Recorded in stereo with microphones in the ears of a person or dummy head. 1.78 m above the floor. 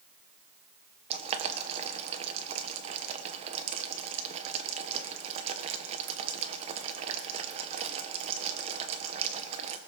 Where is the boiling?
30° right (ahead or behind), 1.3 m.